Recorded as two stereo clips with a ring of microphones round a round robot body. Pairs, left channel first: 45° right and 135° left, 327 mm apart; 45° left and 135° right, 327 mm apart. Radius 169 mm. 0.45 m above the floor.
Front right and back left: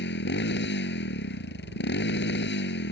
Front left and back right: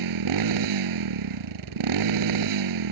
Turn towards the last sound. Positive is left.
turn(degrees=-105)